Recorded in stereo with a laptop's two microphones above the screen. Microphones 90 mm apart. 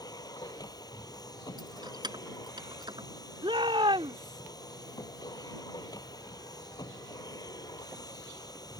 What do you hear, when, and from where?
0.0 s a machine running: 45° left (ahead or behind)
1.6 s keys jangling: 50° right (ahead or behind)
3.4 s a shout: 75° right (ahead or behind)